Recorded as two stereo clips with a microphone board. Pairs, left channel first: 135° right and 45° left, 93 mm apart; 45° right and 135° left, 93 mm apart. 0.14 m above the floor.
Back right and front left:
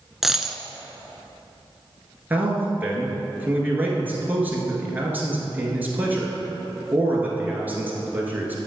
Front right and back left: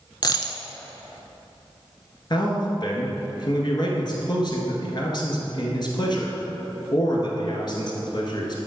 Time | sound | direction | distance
0.2 | a dropped coin | 40° right | 0.6 m
2.3 | a man speaking | 25° right | 1.9 m